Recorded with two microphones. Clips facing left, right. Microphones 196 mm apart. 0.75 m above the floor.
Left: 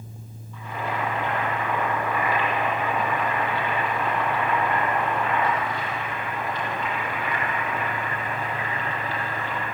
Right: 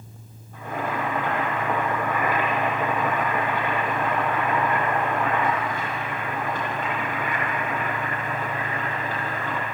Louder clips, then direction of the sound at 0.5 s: Right 2 dB; 50° right (ahead or behind).